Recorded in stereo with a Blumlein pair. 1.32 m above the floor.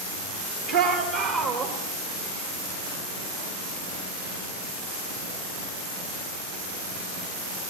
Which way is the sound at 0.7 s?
40° right.